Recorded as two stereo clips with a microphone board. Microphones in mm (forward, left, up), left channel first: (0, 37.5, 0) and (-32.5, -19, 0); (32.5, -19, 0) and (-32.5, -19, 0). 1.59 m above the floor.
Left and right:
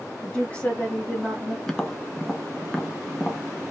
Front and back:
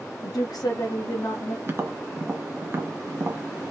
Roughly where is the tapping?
Behind left.